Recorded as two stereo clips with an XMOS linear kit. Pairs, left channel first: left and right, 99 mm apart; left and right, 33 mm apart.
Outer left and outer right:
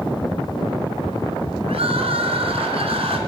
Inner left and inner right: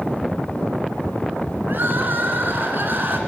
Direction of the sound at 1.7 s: 75° right (ahead or behind).